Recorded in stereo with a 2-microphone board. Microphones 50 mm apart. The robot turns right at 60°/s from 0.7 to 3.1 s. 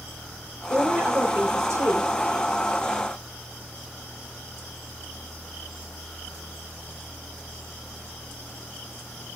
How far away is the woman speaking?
About 4 m.